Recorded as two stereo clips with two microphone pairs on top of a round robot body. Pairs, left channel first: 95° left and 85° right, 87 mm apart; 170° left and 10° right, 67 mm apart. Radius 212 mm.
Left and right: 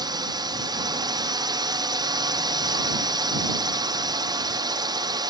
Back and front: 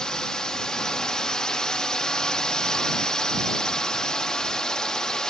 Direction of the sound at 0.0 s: 100° right.